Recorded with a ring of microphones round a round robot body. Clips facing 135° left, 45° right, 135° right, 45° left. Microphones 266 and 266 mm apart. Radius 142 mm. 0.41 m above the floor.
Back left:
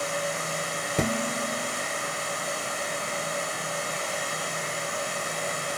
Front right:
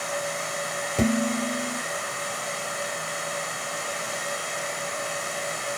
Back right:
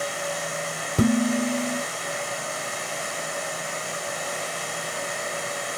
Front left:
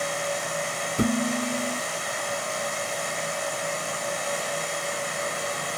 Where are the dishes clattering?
150° right, 1.3 m.